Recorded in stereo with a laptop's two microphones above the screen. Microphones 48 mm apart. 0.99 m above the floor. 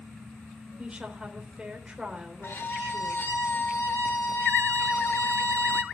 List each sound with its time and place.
0.8 s a woman speaking: 20° right (ahead or behind), 3.5 m
2.4 s a violin: 60° left (ahead or behind), 1.9 m